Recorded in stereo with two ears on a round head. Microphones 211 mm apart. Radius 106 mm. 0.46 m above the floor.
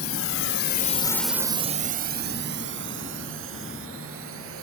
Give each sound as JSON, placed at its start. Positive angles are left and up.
{"t": 0.0, "sound": "a drone", "side_deg": 65}